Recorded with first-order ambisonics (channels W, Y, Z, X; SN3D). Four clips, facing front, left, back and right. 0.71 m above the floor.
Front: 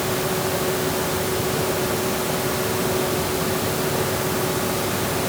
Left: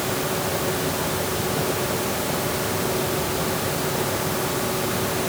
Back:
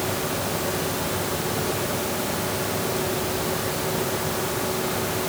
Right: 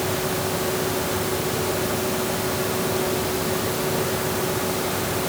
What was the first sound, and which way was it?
Only background noise.